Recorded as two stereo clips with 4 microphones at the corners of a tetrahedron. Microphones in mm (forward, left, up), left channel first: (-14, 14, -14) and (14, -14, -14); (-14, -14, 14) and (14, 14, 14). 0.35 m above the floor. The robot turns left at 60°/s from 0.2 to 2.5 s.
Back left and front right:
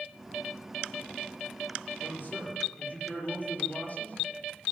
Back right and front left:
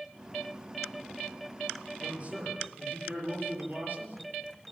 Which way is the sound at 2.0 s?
120° left.